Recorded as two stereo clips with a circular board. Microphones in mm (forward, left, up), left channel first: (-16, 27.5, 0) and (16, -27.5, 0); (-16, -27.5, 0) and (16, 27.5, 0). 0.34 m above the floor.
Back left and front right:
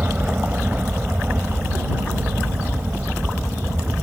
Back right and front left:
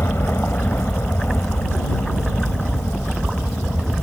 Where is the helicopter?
110° right.